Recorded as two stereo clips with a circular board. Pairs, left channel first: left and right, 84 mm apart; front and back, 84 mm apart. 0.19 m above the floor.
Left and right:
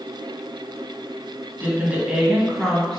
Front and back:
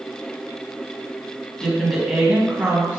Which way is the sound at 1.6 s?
70° right.